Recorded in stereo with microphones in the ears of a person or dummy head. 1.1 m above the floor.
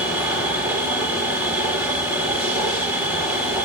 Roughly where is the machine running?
Centre.